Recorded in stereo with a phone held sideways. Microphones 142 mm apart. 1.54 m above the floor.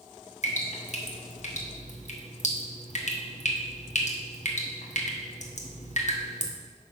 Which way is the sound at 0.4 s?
60° left (ahead or behind).